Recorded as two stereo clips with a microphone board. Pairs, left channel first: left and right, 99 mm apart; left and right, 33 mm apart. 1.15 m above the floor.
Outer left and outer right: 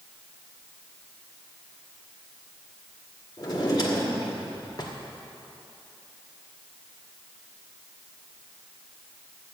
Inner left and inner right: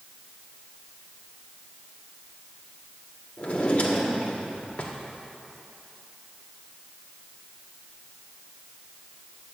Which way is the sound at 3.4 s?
45° left (ahead or behind).